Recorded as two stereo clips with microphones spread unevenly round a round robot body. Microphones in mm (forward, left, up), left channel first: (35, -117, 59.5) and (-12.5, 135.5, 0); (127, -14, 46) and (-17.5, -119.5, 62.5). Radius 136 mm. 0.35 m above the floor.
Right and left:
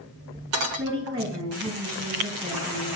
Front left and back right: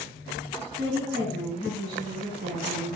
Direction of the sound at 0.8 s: 170° left.